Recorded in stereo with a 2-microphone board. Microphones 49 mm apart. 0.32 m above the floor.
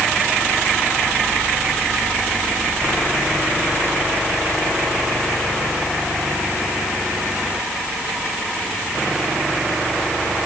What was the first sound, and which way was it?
Only background noise.